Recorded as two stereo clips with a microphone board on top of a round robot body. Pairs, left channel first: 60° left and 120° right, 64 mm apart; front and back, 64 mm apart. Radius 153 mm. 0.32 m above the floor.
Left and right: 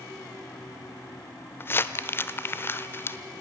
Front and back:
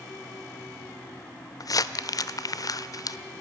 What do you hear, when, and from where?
1.6 s crumpling: 10° left, 0.9 m